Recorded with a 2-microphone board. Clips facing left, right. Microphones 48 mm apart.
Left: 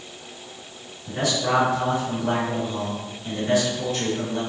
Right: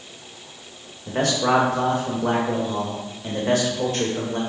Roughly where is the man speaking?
Right.